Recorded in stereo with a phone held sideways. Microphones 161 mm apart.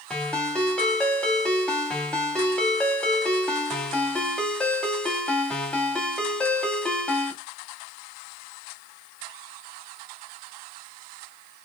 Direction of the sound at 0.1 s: 5° left (ahead or behind).